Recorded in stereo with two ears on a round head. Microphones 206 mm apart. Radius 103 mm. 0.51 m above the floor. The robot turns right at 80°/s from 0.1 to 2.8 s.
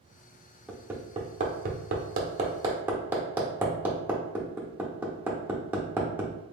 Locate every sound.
0.7 s hammering: centre (ahead or behind), 0.8 m; by 6.3 s 10° right (ahead or behind), 0.8 m